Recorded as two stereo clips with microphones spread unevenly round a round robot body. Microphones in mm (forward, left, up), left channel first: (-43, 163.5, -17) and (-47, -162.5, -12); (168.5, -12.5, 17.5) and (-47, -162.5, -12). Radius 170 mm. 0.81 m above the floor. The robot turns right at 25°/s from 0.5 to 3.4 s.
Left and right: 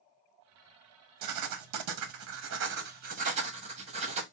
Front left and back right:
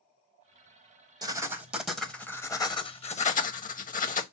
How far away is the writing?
About 0.9 m.